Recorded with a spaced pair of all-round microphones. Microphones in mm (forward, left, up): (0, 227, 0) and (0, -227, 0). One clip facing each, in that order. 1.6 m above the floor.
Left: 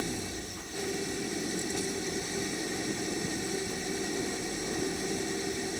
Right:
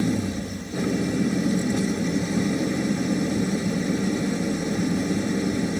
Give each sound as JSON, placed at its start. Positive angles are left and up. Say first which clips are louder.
{"t": 0.0, "sound": "an engine running", "louder": "right 12 dB", "side_deg": -85}